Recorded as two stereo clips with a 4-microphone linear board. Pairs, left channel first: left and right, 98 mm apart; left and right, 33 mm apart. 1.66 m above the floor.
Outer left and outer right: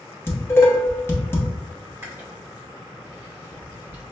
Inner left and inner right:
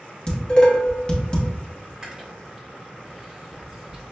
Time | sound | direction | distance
0.3 | dishes clattering | 25° left (ahead or behind) | 0.8 m
2.0 | chewing | 25° right (ahead or behind) | 1.2 m